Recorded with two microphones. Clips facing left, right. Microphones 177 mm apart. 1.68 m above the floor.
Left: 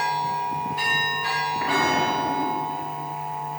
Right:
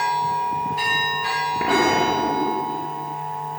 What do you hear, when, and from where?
1.6 s an explosion: 85° right, 0.7 m